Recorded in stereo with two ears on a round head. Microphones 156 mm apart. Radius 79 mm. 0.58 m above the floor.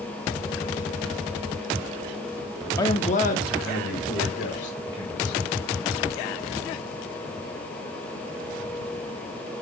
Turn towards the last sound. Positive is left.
turn(degrees=80)